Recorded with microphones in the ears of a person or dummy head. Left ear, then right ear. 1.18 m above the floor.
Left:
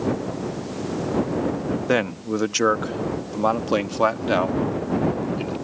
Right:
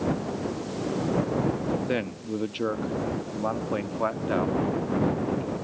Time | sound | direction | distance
1.9 | a man speaking | 40° left (ahead or behind) | ?